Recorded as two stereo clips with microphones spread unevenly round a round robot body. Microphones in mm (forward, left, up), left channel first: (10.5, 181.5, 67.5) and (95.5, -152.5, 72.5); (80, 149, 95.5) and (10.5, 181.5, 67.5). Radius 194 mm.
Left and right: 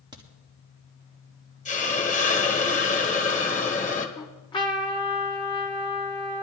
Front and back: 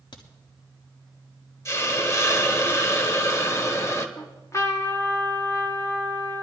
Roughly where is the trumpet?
Ahead left.